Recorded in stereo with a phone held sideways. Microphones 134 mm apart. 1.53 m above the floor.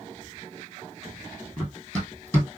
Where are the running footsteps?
10° left (ahead or behind), 2 m.